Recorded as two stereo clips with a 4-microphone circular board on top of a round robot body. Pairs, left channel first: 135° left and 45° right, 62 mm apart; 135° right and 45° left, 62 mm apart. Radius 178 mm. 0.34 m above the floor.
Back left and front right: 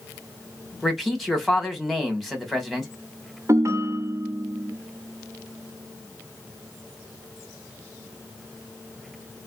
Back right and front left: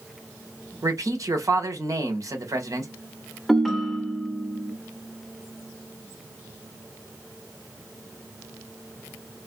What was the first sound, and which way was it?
A man speaking, 50° left.